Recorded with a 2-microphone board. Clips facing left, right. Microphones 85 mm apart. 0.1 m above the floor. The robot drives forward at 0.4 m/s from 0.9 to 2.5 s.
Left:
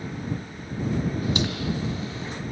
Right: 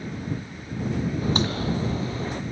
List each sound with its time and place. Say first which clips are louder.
1.2 s a crack: right 2 dB; 35° right (ahead or behind); by 2.4 s 40° right (ahead or behind)